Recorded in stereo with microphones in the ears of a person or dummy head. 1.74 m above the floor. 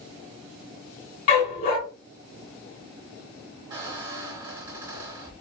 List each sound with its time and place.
1.3 s a dog barking: 45° left (ahead or behind), 2.5 m
3.7 s a squeak: 15° right (ahead or behind), 1.1 m